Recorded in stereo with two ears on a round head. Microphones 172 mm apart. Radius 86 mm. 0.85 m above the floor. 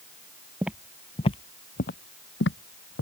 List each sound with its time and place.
0.6 s footsteps: 10° right (ahead or behind); by 3.0 s 70° left (ahead or behind)